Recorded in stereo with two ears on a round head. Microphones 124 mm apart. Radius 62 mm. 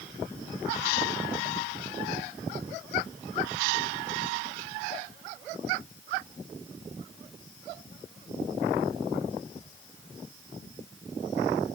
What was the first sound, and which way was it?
Only background noise.